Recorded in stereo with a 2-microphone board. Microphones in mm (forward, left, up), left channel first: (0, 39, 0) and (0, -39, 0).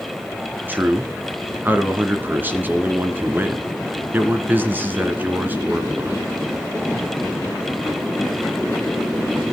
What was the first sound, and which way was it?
A man speaking, 25° right (ahead or behind).